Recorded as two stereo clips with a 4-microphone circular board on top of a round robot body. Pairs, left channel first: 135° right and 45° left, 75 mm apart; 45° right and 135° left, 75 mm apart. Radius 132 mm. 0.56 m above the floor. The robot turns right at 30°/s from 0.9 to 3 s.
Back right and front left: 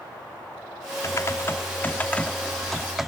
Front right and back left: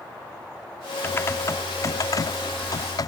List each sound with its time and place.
1.0 s typing on a keyboard: 100° right; by 3.1 s 40° right